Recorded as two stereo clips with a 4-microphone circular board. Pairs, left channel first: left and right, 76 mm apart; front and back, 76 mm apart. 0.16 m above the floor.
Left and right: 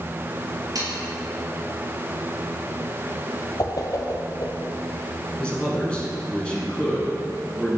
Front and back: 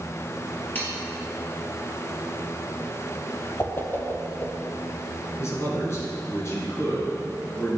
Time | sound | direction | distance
0.8 | sawing | 65° right | 3 m
3.6 | a whoosh | 55° left | 1.2 m
5.4 | a man speaking | 20° left | 2.5 m